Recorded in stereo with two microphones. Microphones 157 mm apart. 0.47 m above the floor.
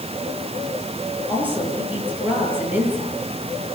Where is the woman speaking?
10° right (ahead or behind), 9 m.